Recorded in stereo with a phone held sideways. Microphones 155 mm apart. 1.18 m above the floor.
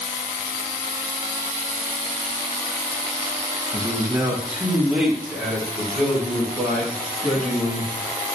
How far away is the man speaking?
About 1.5 m.